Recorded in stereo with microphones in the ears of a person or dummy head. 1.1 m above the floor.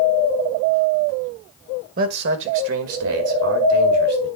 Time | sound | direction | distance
2.0 | a man speaking | 45° right (ahead or behind) | 1.1 m